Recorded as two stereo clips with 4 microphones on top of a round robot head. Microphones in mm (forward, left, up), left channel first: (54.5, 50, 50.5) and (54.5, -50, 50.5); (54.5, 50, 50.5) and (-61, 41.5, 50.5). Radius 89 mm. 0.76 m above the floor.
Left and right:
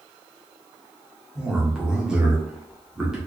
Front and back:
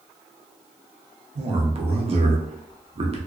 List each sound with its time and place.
1.4 s a man speaking: 175° right, 0.8 m